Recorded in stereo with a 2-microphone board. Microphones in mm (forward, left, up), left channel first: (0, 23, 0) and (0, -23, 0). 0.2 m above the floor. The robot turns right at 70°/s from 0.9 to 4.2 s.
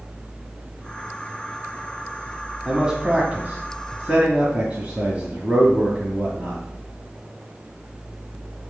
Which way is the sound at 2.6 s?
15° right (ahead or behind).